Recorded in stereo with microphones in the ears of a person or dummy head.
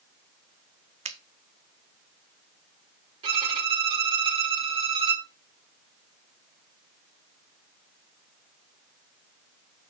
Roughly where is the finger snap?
Right.